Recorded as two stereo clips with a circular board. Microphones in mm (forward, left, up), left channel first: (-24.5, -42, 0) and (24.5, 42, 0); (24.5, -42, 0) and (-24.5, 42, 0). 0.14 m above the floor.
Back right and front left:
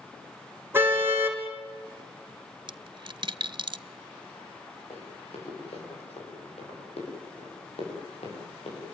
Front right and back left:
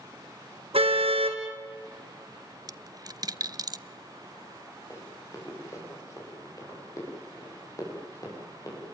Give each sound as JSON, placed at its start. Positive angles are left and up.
{"t": 0.7, "sound": "a car horn", "azimuth_deg": 130, "distance_m": 3.5}
{"t": 2.7, "sound": "a dropped coin", "azimuth_deg": 80, "distance_m": 0.5}
{"t": 4.9, "sound": "running footsteps", "azimuth_deg": -120, "distance_m": 9.0}